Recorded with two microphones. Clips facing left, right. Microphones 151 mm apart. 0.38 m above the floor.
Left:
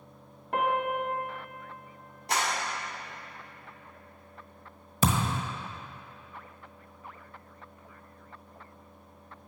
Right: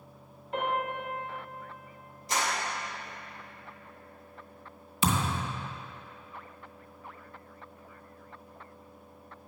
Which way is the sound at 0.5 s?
75° left (ahead or behind).